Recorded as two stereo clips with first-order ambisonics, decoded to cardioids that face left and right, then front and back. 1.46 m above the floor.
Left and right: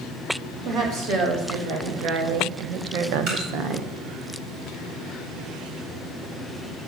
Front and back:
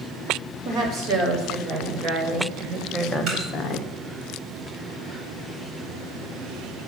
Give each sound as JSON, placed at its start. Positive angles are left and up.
{"t": 0.7, "sound": "a woman speaking", "azimuth_deg": -130, "distance_m": 3.0}
{"t": 3.3, "sound": "dripping", "azimuth_deg": -125, "distance_m": 4.0}